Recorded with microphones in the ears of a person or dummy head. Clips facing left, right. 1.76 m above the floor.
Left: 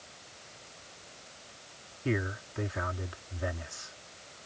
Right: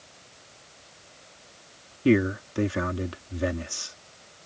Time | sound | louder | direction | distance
2.0 | a man speaking | right 12 dB | 55° right (ahead or behind) | ?